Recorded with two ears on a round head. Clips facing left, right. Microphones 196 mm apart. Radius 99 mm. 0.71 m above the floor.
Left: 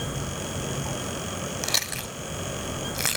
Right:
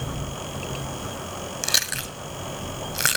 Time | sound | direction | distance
1.6 | chewing | 10° right (ahead or behind) | 1.2 m